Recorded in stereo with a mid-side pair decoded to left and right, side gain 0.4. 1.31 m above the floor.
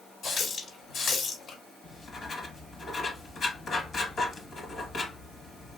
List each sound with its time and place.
0.2 s a running tap: 65° left, 2 m
1.8 s writing: 50° left, 1.6 m